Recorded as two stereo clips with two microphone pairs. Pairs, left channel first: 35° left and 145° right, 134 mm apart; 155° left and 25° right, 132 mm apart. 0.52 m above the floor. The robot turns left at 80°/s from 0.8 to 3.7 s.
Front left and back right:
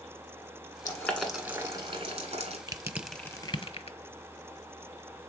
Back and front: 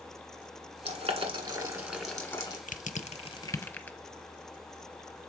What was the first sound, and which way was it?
Boiling, 15° right.